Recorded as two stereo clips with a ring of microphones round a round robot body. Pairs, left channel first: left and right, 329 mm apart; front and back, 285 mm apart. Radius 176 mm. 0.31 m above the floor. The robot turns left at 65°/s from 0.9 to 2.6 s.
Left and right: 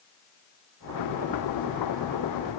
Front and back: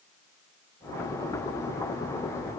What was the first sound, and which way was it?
Only background noise.